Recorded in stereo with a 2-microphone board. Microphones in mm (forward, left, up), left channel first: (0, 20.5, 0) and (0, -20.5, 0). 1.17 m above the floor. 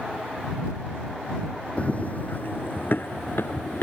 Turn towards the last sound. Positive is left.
turn(degrees=65)  # may be behind; listen again after turning